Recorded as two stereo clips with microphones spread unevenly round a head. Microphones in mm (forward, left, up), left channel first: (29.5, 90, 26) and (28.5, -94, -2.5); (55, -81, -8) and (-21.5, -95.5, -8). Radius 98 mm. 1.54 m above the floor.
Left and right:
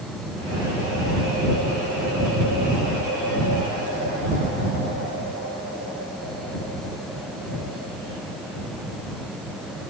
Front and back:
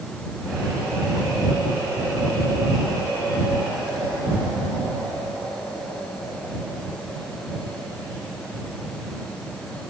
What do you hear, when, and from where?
Only background noise.